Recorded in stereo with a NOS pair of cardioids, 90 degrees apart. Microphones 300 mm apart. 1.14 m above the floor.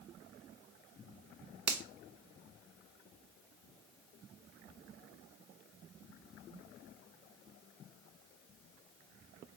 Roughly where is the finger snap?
Ahead right.